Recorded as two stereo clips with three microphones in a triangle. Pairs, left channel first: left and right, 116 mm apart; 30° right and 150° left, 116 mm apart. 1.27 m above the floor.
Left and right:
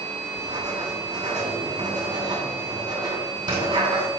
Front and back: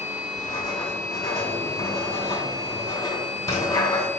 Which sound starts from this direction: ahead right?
Writing, at 0.4 s.